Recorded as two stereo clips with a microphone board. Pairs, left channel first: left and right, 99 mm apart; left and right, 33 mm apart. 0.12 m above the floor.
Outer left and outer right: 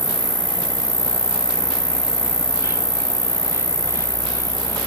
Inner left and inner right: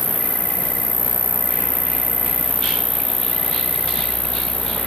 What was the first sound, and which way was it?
An insect, 75° left (ahead or behind).